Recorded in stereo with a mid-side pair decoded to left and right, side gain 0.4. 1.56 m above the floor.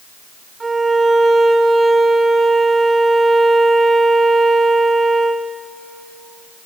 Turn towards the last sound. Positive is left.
turn(degrees=-30)